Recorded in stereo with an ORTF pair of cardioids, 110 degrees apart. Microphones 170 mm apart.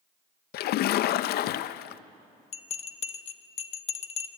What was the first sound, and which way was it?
A splash, 65° left.